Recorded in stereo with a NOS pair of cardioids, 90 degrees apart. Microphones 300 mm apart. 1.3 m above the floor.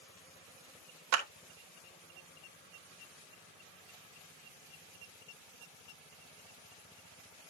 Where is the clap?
65° right, 1.6 m.